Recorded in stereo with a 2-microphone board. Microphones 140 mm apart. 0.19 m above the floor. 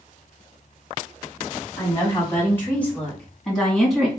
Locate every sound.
1.8 s a woman speaking: 20° left (ahead or behind), 1.6 m; by 4.1 s centre (ahead or behind), 2 m